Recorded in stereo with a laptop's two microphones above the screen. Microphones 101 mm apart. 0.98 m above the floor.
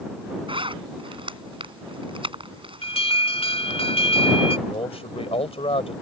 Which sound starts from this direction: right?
A zipper, at 0.5 s.